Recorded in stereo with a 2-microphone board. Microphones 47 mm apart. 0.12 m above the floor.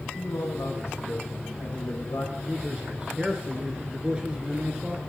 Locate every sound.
0.1 s a man speaking: 65° left (ahead or behind), 5 m
2.4 s a man speaking: 20° right (ahead or behind), 1.4 m